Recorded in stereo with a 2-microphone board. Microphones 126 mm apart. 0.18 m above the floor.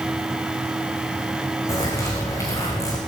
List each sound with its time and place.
1.7 s a bird: 25° left (ahead or behind), 7 m